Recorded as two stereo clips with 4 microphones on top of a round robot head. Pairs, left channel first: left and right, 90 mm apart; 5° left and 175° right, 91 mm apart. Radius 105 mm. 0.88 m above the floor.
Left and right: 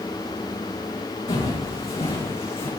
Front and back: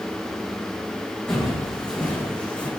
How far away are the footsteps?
About 4 m.